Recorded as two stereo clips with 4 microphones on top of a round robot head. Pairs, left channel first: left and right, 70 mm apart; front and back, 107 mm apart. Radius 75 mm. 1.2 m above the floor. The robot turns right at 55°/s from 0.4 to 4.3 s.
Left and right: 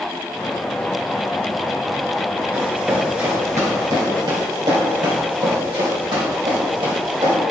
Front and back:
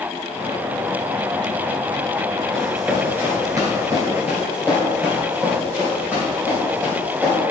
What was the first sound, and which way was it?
Running footsteps, 75° right.